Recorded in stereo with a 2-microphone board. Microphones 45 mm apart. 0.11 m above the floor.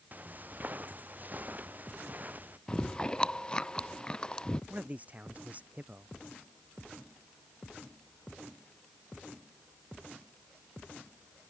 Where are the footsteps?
40° right (ahead or behind).